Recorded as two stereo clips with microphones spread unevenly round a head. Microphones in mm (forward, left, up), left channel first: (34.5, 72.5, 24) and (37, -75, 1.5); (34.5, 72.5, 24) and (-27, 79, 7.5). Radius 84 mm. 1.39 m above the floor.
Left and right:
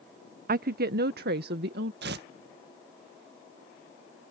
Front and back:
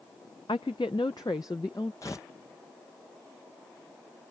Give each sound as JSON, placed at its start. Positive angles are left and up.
{"t": 0.5, "sound": "a woman speaking", "azimuth_deg": -60}
{"t": 2.0, "sound": "tearing paper", "azimuth_deg": -75}